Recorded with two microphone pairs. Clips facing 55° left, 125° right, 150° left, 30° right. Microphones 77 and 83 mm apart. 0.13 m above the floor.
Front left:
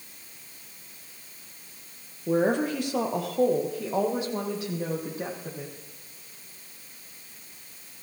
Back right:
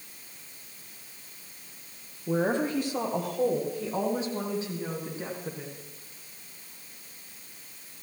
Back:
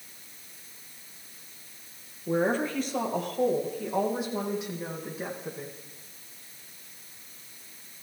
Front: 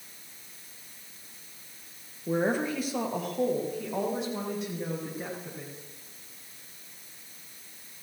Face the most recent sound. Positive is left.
turn(degrees=70)